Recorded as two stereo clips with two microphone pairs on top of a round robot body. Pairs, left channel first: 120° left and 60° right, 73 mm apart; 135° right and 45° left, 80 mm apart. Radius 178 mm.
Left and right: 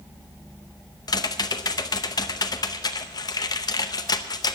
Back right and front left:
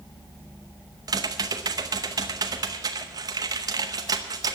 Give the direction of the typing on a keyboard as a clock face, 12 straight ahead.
9 o'clock.